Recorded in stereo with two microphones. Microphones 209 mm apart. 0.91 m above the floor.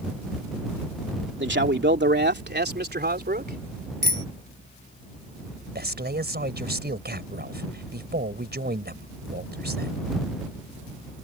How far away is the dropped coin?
I don't hear a dropped coin.